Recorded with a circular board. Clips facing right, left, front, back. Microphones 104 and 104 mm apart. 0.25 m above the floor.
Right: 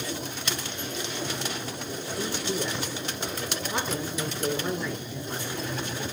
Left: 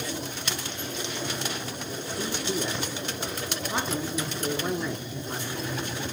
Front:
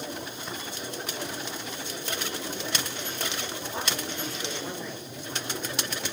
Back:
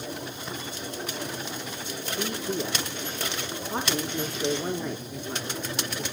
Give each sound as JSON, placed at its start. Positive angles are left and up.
{"t": 2.2, "sound": "a man speaking", "azimuth_deg": 155, "distance_m": 3.5}